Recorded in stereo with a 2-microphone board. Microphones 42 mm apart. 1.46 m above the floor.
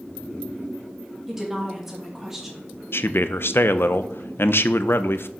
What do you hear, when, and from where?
1.3 s a woman speaking: 10° right (ahead or behind), 2.5 m
2.9 s a man speaking: 60° left (ahead or behind), 0.7 m